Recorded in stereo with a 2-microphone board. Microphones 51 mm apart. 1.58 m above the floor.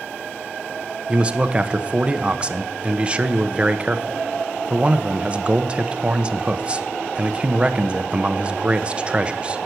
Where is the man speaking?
20° right (ahead or behind), 0.7 m.